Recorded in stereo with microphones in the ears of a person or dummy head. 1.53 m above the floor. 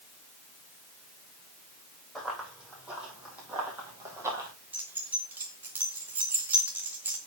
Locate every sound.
2.1 s running footsteps: 5° right (ahead or behind), 4 m; by 4.5 s 20° right (ahead or behind), 3 m
4.7 s keys jangling: 10° right (ahead or behind), 1.0 m